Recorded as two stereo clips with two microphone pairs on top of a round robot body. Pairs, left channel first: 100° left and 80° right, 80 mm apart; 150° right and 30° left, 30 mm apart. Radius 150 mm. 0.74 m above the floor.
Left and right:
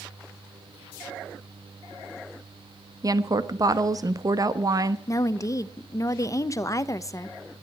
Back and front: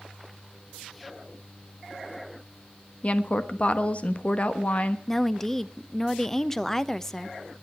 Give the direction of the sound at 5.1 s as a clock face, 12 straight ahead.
8 o'clock.